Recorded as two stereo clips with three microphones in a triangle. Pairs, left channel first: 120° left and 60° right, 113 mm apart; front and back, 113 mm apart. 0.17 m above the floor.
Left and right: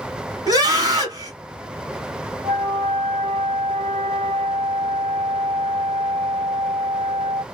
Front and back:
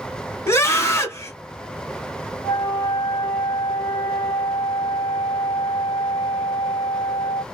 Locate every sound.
0.5 s a scream: 45° right, 1.2 m
2.4 s a flute: 30° right, 0.8 m